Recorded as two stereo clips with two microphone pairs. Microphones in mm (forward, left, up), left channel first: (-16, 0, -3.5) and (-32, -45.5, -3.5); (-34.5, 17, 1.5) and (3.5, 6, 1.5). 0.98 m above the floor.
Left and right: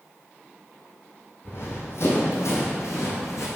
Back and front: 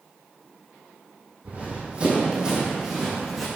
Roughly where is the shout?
I don't hear a shout.